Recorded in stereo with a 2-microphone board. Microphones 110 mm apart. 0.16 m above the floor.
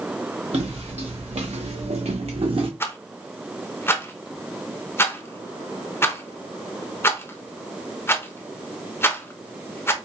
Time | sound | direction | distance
0.5 | footsteps | 70° right (ahead or behind) | 1.4 m
2.8 | a rattle | 25° left (ahead or behind) | 0.6 m